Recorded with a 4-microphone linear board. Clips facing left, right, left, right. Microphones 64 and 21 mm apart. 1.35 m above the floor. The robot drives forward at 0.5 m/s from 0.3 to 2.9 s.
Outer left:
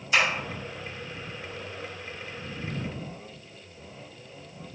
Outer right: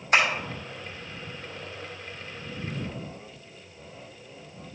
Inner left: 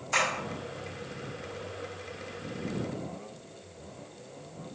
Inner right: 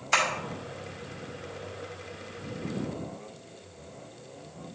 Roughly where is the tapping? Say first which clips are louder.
Outer right 2 dB, inner right 2 dB; right.